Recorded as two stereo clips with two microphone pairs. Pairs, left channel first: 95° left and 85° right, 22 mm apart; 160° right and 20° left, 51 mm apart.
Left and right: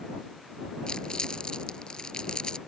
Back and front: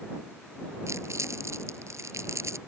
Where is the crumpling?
45° left.